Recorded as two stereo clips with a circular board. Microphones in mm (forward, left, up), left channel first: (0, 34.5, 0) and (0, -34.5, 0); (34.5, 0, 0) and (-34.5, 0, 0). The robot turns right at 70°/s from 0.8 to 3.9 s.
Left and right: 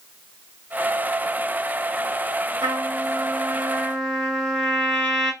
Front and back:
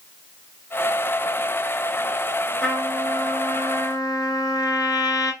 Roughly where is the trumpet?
Right.